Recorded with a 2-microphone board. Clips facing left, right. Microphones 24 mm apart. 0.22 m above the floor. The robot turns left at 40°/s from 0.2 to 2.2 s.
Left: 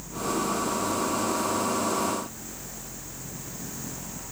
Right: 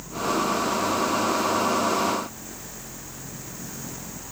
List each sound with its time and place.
Only background noise.